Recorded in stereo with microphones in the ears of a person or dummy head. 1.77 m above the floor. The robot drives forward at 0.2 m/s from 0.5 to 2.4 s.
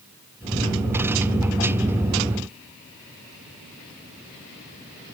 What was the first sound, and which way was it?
Only background noise.